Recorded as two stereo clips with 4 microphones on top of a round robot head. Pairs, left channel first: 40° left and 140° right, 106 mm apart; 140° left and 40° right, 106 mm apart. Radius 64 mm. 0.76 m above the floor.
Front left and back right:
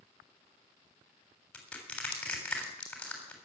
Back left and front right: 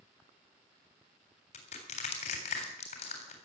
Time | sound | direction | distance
1.5 | crushing | 120° left | 3.5 m